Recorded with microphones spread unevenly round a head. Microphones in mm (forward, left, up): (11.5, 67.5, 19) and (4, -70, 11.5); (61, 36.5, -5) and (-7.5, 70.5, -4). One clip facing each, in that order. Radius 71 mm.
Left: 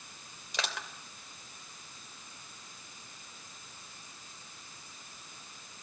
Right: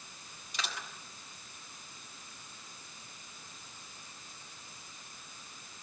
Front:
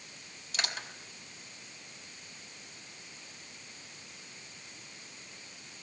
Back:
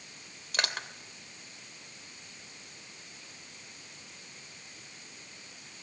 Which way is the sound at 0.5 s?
120° left.